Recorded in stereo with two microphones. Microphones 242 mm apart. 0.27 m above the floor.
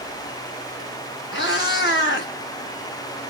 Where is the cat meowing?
50° left (ahead or behind), 1.5 m.